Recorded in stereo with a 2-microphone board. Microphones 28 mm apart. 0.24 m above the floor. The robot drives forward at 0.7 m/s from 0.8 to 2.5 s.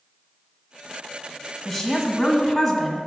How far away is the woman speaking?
About 1.3 m.